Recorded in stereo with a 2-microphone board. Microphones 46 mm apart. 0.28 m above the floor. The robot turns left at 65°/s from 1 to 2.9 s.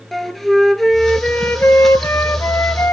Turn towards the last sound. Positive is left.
turn(degrees=50)